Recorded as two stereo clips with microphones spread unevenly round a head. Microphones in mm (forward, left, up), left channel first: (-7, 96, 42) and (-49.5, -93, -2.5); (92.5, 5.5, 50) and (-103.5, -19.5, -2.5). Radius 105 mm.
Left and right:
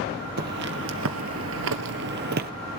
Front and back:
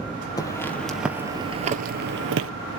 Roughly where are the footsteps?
Ahead right.